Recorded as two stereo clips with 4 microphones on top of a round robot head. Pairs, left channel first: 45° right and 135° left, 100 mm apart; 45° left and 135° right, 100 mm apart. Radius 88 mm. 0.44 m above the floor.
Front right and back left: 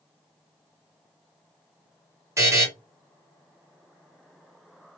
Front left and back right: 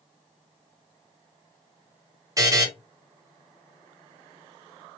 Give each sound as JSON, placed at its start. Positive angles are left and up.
{"t": 2.4, "sound": "a buzzer", "azimuth_deg": -175, "distance_m": 1.2}